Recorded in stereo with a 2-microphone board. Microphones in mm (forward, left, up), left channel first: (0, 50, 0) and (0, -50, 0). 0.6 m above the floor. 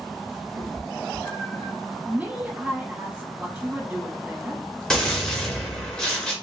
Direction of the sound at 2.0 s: 20° right (ahead or behind).